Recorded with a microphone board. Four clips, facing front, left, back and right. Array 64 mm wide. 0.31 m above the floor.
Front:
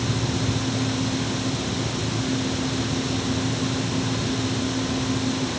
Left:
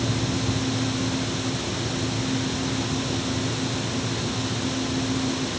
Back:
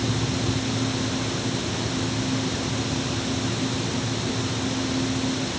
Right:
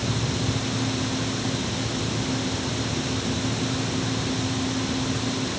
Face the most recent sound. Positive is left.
No sound to turn to.